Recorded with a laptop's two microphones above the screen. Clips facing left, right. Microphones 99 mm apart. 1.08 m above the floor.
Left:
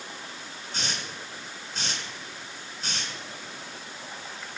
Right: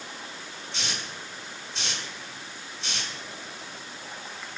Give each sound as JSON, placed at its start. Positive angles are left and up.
{"t": 0.7, "sound": "a hiss", "side_deg": 40, "distance_m": 3.5}